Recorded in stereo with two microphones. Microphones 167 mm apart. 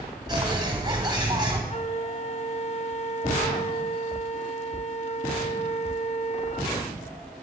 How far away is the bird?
About 2 m.